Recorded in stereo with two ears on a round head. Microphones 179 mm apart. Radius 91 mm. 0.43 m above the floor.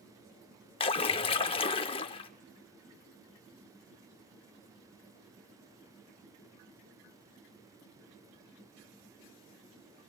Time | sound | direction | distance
0.8 | a splash | 25° left (ahead or behind) | 0.6 m